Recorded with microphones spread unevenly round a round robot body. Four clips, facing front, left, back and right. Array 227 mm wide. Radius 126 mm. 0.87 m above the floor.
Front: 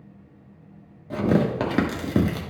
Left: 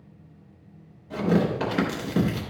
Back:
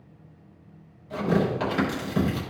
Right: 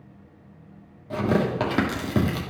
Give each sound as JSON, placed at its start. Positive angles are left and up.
{"t": 1.1, "sound": "tearing paper", "azimuth_deg": -25, "distance_m": 1.3}